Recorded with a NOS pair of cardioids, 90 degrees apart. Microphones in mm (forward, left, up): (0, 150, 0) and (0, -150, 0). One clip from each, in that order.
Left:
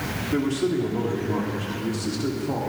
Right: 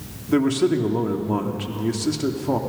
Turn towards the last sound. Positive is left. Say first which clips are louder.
# right 6 dB
turn(degrees=-45)